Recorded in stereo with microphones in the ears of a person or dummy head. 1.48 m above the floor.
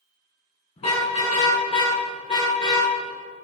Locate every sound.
0.8 s a car horn: 35° left (ahead or behind), 6 m